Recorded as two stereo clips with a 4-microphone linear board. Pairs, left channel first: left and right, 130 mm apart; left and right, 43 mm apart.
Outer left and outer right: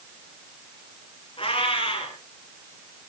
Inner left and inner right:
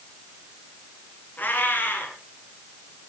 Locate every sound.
1.4 s a cat meowing: 45° left (ahead or behind), 4.5 m